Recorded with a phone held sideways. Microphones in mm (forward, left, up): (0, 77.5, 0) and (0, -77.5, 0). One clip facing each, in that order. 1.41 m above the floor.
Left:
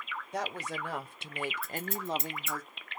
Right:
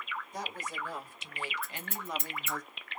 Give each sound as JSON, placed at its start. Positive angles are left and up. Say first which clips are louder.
{"t": 0.3, "sound": "a woman speaking", "louder": "left 7 dB", "side_deg": 70, "distance_m": 1.0}
{"t": 1.6, "sound": "scissors", "louder": "left 6 dB", "side_deg": 35, "distance_m": 1.6}